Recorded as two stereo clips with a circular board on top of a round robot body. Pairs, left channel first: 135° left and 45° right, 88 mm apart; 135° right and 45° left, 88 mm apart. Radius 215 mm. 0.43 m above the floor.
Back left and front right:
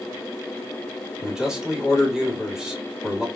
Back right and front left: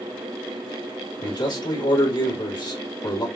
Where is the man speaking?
125° right, 1.8 m.